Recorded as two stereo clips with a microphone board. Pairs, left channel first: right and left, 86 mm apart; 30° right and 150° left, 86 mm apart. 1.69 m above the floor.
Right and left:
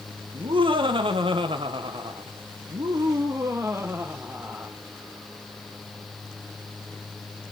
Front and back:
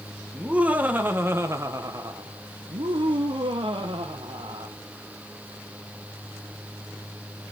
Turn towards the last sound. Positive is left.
turn(degrees=165)